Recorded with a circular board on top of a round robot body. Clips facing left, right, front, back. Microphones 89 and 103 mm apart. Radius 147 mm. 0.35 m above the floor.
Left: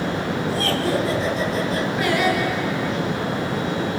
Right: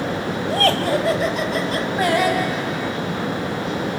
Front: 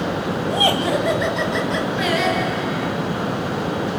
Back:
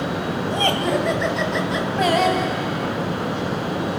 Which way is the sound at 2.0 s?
135° right.